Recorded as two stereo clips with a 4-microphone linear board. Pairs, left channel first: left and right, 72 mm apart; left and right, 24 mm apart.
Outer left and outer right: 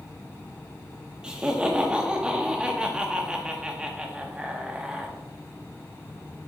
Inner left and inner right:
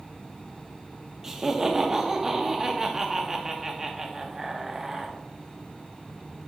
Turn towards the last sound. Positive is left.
turn(degrees=-15)  # may be behind; listen again after turning